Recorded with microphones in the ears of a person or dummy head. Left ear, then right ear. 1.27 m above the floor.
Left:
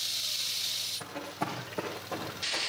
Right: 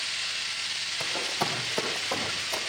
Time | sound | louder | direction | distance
1.0 | running footsteps | right 8 dB | 55° right (ahead or behind) | 3.5 m